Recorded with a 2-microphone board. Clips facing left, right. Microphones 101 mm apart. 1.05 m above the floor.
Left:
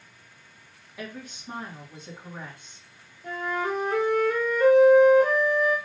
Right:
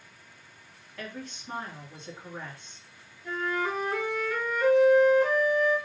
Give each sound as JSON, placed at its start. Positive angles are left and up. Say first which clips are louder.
{"t": 1.0, "sound": "a woman speaking", "louder": "left 1 dB", "side_deg": 10, "distance_m": 1.6}
{"t": 3.2, "sound": "a flute", "louder": "left 1 dB", "side_deg": 60, "distance_m": 1.4}